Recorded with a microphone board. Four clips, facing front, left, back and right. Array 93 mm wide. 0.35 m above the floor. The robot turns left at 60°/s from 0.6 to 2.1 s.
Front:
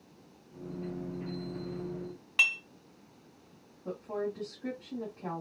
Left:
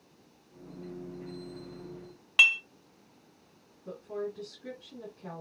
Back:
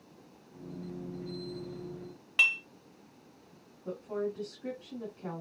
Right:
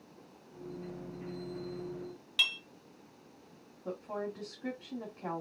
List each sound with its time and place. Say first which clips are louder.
2.4 s dishes clattering: left 11 dB, back 1 dB; 95° left, 1.0 m
3.9 s a woman speaking: left 1 dB, even; 70° right, 2 m